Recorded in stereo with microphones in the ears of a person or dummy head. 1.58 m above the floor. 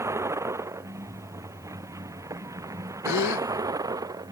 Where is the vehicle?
15° right (ahead or behind); by 4.3 s 20° right (ahead or behind).